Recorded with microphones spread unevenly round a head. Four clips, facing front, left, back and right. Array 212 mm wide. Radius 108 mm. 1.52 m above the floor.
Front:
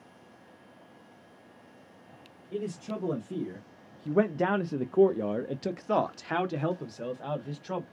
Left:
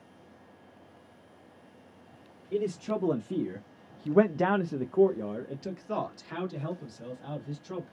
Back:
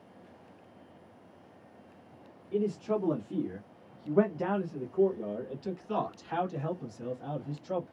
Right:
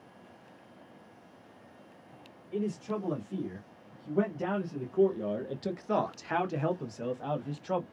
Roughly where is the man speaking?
Left.